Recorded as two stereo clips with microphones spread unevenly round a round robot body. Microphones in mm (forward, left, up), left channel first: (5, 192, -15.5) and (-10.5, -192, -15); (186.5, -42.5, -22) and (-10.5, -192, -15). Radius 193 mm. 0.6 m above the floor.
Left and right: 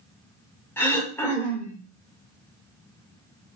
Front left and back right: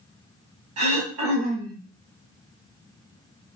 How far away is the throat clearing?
About 1.0 m.